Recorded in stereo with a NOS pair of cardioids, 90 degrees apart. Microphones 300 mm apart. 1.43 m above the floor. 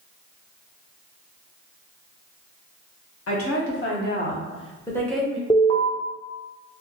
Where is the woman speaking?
50° left, 1.3 m; by 5.4 s 5° right, 0.9 m.